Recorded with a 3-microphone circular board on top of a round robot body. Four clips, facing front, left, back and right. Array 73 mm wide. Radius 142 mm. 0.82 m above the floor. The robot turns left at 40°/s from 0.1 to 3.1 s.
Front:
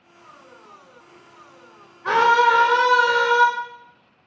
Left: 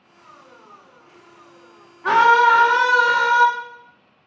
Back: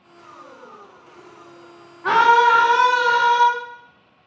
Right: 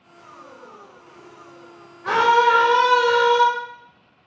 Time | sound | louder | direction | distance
2.0 | a scream | left 3 dB, back 2 dB | 135° left | 3 m